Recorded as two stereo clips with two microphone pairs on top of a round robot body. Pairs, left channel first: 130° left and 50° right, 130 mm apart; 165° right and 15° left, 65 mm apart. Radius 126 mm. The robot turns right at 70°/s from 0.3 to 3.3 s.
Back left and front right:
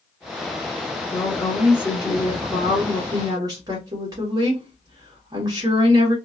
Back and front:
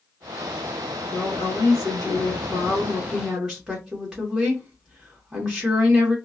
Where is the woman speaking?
Straight behind, 1.3 m; by 6.2 s 25° right, 1.3 m.